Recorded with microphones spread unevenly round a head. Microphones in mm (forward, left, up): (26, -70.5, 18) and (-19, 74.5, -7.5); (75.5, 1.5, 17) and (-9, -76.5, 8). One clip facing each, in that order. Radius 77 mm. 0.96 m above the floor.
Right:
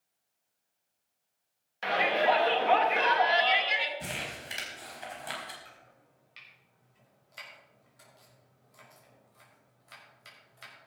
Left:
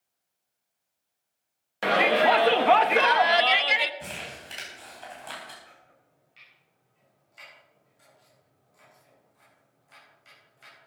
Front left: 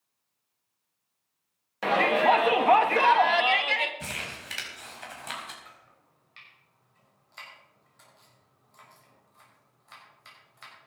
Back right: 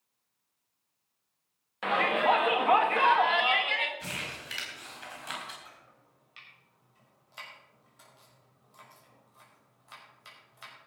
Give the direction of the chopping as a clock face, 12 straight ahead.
2 o'clock.